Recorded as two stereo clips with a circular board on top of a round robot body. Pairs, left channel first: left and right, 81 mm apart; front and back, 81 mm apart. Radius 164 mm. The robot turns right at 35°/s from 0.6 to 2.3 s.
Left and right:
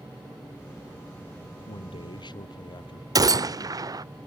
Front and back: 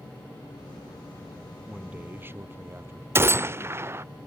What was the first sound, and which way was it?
A man speaking, 95° left.